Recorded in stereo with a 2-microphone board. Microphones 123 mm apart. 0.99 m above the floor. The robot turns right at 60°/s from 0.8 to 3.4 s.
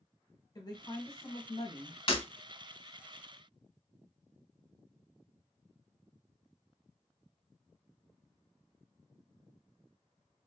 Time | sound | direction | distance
0.6 | a woman speaking | 45° left | 0.8 m
2.1 | breaking glass | 45° left (ahead or behind) | 0.7 m